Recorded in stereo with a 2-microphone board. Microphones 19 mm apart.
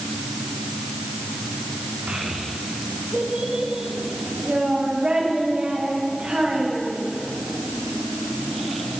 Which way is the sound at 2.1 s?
60° right (ahead or behind).